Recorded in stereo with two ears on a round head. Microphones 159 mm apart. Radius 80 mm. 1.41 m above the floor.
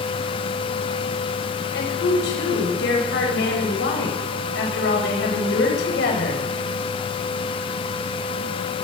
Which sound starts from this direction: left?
A woman speaking, at 1.7 s.